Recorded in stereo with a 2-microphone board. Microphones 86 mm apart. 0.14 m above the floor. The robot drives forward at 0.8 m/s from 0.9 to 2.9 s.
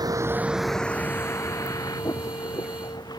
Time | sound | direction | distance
0.0 | a vehicle | 50° right (ahead or behind) | ?